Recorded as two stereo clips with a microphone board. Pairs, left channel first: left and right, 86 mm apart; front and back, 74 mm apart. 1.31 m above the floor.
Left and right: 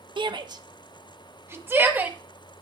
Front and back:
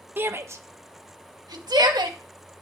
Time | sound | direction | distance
0.2 | a shout | 115° right | 1.2 m